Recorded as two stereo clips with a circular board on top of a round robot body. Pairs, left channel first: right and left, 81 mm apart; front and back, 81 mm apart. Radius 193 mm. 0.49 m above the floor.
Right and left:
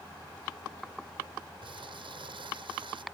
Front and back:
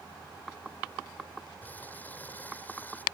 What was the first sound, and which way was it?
Crumpling, 70° left.